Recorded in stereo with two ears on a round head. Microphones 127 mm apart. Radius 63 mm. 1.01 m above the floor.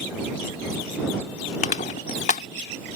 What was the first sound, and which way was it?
Crushing, 60° left (ahead or behind).